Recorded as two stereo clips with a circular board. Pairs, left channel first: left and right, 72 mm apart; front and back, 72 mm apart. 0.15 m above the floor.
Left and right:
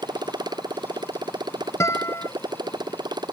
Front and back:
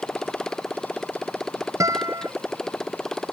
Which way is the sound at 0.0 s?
80° right.